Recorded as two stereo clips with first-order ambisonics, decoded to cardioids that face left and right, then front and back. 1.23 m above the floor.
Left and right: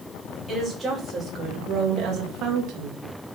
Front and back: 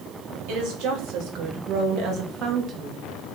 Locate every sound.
0.5 s a woman speaking: 170° right, 3.5 m; by 3.0 s 115° right, 1.7 m